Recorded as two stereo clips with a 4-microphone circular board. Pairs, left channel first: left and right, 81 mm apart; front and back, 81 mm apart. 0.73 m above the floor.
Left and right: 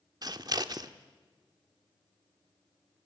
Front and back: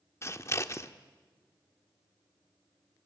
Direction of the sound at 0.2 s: 55° right.